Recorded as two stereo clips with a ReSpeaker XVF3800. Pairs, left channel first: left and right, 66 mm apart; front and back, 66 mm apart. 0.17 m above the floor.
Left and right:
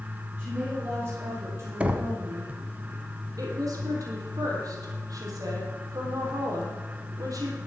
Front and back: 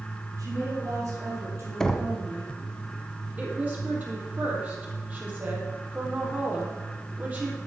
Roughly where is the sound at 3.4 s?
Behind right.